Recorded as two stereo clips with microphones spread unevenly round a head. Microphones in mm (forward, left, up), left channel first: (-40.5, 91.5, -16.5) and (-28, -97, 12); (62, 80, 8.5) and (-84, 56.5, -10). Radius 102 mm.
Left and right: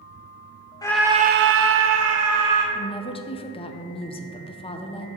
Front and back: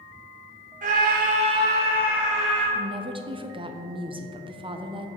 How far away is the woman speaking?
About 0.8 m.